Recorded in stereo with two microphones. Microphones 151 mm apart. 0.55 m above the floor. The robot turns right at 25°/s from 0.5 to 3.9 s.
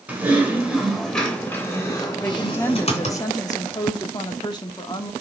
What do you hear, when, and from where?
0.1 s typing on a keyboard: 15° right, 2.5 m; by 3.2 s 55° left, 2.5 m
2.2 s a woman speaking: 25° left, 1.1 m; by 5.1 s 65° left, 1.1 m